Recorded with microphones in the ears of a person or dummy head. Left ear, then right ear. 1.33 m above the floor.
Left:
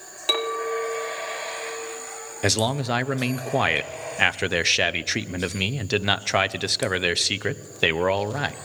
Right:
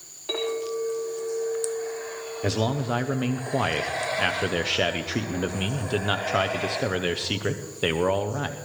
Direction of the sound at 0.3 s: 75° left (ahead or behind).